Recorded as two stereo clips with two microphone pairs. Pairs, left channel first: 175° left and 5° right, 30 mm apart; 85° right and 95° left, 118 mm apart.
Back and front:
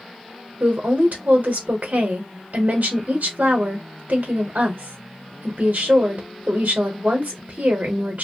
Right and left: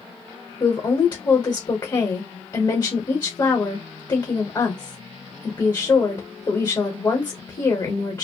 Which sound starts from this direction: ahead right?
A woman speaking, at 0.6 s.